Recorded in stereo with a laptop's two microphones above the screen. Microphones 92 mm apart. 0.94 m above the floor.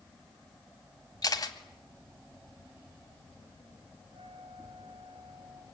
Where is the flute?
70° right (ahead or behind), 6 m.